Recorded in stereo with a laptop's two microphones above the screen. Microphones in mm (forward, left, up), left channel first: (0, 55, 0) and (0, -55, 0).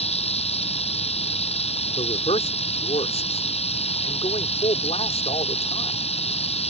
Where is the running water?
70° left (ahead or behind).